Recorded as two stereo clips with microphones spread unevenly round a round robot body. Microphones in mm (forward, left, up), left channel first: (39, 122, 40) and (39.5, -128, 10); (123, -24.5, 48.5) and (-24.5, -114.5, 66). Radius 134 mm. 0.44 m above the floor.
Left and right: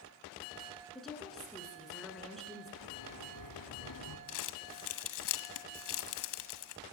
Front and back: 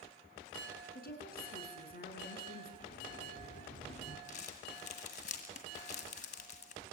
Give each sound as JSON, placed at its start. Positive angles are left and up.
{"t": 0.9, "sound": "a woman speaking", "azimuth_deg": 0, "distance_m": 6.5}
{"t": 2.8, "sound": "a sliding door", "azimuth_deg": 85, "distance_m": 2.5}
{"t": 4.3, "sound": "crumpling", "azimuth_deg": 85, "distance_m": 1.8}